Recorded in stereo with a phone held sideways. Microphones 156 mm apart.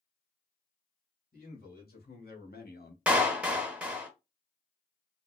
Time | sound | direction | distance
1.3 | a man speaking | 65° left (ahead or behind) | 2.0 m
3.1 | a clap | 10° right (ahead or behind) | 0.8 m